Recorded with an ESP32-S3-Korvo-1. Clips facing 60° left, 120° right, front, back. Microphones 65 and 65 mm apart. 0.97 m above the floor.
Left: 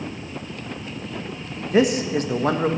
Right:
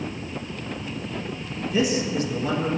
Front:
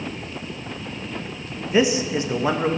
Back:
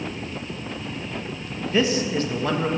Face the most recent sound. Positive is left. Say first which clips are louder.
# left 5 dB, front 2 dB
turn(degrees=70)